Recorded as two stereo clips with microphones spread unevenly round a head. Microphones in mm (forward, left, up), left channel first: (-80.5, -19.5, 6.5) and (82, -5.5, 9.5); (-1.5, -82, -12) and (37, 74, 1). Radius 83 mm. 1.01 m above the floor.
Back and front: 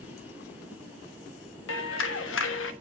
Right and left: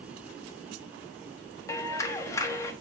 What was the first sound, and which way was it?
A clap, 175° right.